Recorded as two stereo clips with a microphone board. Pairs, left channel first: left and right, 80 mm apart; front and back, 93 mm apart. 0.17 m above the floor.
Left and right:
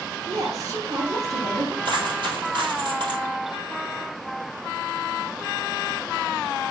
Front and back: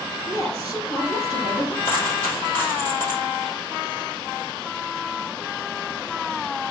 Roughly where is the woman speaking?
Ahead right.